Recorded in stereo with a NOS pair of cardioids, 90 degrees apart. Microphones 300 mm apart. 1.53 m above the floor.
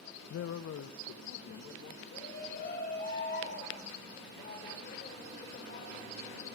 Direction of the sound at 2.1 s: 35° left.